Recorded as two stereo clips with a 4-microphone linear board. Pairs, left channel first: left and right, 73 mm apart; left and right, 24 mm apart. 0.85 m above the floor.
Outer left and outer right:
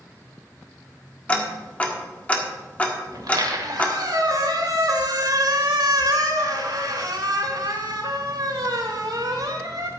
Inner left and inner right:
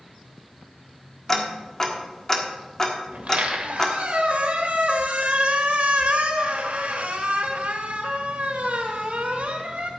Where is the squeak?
65° right (ahead or behind), 1.9 m.